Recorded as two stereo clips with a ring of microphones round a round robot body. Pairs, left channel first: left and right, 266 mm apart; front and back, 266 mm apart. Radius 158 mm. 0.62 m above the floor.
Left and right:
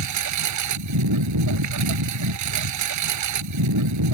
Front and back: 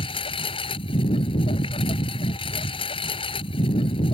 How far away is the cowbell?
I don't hear a cowbell.